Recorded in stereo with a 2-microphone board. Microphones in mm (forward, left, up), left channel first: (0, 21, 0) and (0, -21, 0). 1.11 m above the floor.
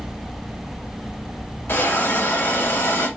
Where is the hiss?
70° left (ahead or behind), 5.5 m.